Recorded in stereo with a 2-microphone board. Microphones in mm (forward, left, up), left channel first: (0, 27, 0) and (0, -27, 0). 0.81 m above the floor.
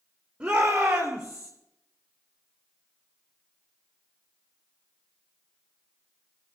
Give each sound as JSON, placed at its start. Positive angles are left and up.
{"t": 0.4, "sound": "a shout", "side_deg": -25, "distance_m": 3.0}